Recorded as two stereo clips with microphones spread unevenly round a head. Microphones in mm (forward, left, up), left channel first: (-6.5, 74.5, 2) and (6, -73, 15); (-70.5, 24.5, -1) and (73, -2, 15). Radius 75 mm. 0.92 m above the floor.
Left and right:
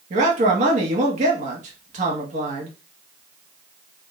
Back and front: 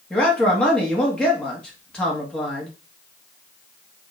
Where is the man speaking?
115° right, 1.2 m.